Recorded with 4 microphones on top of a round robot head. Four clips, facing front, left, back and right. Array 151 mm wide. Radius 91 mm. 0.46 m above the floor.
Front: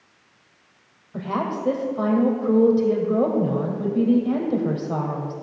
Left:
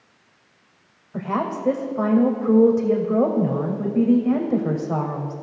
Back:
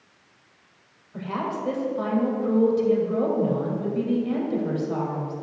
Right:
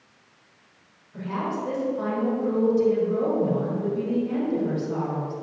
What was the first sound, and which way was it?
A woman speaking, 60° left.